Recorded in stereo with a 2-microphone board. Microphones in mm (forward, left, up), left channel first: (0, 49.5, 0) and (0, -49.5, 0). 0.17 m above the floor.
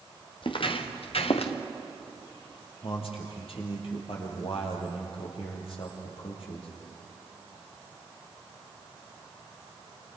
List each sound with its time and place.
0.4 s footsteps: 60° left (ahead or behind), 2.5 m; by 1.5 s 85° left, 2.5 m
2.8 s a man speaking: 75° left (ahead or behind), 5 m